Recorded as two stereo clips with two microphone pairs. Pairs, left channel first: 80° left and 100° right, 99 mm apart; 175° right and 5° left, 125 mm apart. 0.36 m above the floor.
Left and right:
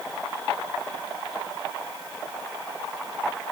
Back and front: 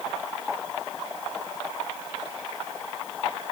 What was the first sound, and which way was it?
Only background noise.